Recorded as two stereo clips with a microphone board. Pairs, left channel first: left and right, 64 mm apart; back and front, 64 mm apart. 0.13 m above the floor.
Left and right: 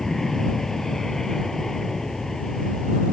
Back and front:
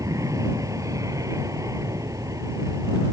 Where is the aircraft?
10° left.